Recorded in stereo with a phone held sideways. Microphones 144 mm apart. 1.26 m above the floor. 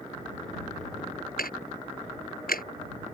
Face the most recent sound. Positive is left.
turn(degrees=90)